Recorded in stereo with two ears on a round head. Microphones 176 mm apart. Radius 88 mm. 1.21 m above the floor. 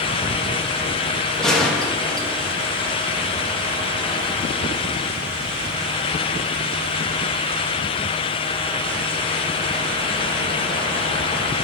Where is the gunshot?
5° left (ahead or behind), 1.2 m.